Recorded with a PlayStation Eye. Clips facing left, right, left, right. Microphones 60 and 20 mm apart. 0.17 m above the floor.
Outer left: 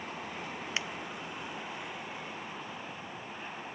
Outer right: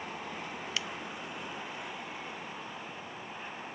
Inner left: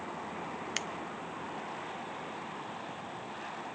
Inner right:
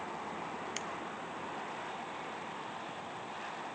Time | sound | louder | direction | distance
0.8 | scissors | outer left 2 dB, inner left 7 dB | 30° left (ahead or behind) | 0.8 m